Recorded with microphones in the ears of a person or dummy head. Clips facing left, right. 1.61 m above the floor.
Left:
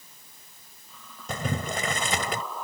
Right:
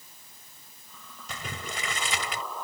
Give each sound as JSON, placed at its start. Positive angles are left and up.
{"t": 1.3, "sound": "boiling", "side_deg": 40}